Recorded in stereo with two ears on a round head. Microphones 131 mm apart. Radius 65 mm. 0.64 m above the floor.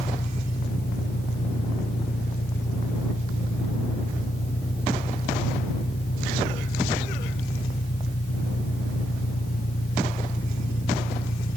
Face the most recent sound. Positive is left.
turn(degrees=65)  # may be behind; listen again after turning